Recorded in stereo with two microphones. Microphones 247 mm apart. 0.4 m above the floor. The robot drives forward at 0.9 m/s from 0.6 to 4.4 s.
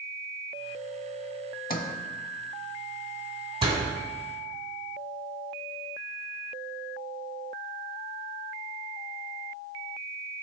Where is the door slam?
20° right (ahead or behind), 2 m; by 3.9 s 15° right (ahead or behind), 2.5 m.